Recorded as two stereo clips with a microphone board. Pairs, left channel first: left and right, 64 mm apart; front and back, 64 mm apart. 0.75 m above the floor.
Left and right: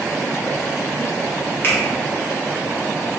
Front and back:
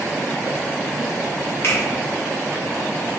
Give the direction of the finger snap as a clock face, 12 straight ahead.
11 o'clock.